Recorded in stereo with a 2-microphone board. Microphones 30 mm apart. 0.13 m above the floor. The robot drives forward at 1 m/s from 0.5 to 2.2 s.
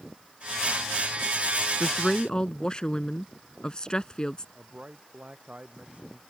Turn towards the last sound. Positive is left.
turn(degrees=-45)  # may be behind; listen again after turning